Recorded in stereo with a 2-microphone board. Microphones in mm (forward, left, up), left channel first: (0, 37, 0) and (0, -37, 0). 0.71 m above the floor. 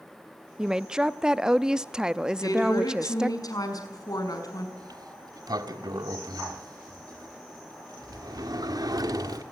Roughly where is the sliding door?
Right.